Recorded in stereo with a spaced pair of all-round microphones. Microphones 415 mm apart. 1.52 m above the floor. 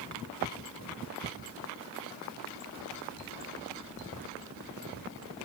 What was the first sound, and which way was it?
Only background noise.